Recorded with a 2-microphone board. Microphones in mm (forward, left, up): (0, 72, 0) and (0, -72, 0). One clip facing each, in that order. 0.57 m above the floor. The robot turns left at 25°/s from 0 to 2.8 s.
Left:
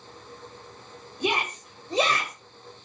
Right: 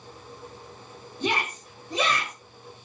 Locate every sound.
1.2 s a shout: 10° left (ahead or behind), 2.5 m; by 2.3 s 40° left (ahead or behind), 2.5 m